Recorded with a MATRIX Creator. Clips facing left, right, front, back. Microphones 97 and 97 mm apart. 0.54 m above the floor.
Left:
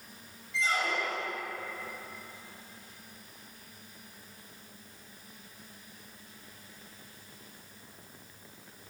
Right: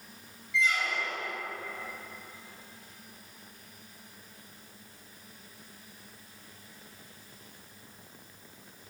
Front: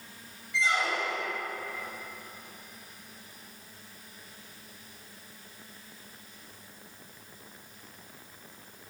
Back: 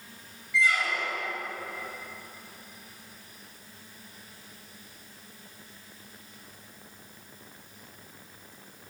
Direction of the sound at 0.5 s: 50° left.